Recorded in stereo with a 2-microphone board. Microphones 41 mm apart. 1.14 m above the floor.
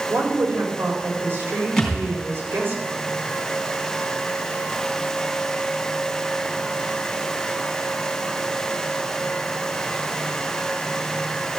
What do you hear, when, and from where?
0.1 s a woman speaking: 80° right, 4 m
1.8 s a thud: 5° left (ahead or behind), 3 m